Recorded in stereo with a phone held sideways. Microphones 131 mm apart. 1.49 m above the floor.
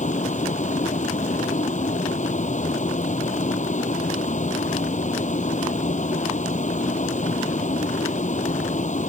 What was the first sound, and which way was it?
A vehicle, 70° left (ahead or behind).